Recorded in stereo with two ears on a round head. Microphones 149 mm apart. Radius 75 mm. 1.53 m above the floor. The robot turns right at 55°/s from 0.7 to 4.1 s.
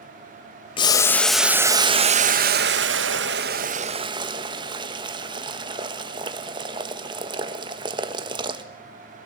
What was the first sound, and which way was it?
Boiling, 150° left.